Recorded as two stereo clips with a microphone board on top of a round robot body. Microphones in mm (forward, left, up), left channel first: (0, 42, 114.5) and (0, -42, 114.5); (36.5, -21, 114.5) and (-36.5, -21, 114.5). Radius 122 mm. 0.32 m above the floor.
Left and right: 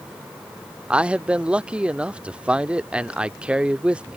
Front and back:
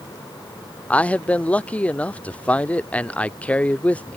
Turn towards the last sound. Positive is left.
turn(degrees=-35)